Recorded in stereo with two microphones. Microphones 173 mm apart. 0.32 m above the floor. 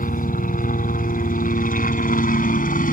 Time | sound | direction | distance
0.0 | a helicopter | 50° left (ahead or behind) | ?